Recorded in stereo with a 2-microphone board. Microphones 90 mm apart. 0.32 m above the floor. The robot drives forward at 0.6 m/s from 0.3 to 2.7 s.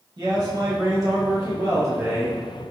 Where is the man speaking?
45° right (ahead or behind), 1.2 m; by 2.4 s 30° right (ahead or behind), 1.7 m.